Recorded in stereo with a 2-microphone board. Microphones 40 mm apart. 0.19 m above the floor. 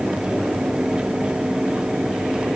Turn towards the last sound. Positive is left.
No sound to turn to.